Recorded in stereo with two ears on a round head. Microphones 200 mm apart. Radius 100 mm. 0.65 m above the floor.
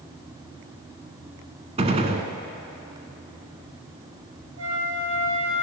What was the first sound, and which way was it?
A gunshot, 30° right (ahead or behind).